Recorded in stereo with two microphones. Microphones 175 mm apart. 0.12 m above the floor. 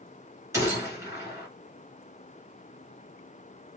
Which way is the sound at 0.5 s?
15° right (ahead or behind).